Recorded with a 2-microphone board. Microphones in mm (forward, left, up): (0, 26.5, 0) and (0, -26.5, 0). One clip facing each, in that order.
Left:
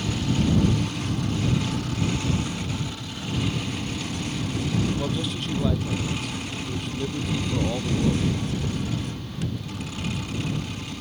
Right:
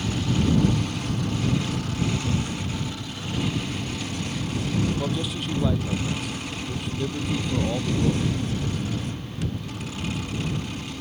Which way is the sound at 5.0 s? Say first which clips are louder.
Even; 5° right (ahead or behind).